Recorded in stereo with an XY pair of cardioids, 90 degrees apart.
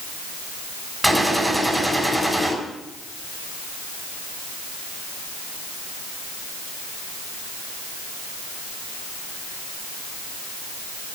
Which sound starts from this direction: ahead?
A gunshot, at 1.0 s.